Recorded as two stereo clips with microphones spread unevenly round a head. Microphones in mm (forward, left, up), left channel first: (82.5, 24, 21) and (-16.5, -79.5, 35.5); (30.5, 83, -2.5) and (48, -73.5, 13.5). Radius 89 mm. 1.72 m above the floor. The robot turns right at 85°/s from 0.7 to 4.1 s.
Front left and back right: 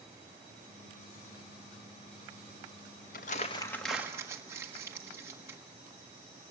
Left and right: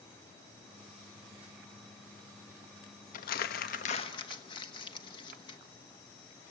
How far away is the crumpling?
About 1.2 m.